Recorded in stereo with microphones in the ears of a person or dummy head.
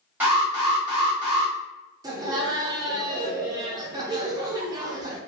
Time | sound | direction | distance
0.2 | an alarm | 10° right (ahead or behind) | 1.5 m
2.0 | laughter | 20° right (ahead or behind) | 0.5 m